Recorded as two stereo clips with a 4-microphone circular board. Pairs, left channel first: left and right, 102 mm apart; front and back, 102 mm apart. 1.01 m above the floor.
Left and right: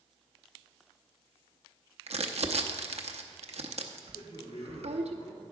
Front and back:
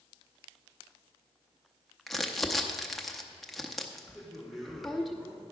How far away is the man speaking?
About 2 m.